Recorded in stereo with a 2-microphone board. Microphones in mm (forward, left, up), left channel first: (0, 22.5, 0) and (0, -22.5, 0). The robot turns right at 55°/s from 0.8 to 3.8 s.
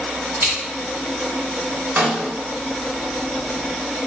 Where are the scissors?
60° right (ahead or behind), 1.7 m.